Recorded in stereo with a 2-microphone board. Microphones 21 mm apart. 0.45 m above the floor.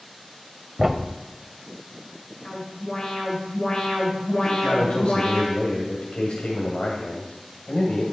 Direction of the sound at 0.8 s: 5° right (ahead or behind).